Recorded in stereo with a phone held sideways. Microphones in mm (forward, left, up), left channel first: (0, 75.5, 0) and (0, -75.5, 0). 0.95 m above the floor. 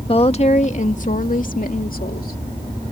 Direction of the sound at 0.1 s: 35° left (ahead or behind).